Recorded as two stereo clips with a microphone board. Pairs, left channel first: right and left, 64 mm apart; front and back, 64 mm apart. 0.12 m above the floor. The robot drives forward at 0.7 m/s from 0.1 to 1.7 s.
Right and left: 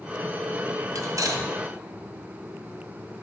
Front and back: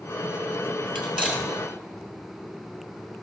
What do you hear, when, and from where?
0.9 s cutlery clinking: 100° left, 1.5 m; by 1.4 s 115° left, 1.6 m